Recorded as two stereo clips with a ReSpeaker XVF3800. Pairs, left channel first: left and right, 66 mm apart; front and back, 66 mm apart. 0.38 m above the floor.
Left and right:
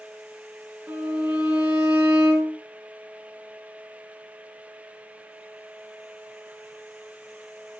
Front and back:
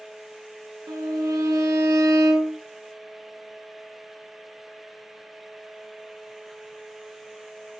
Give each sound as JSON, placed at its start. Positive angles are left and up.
{"t": 0.9, "sound": "a violin", "azimuth_deg": -160, "distance_m": 3.5}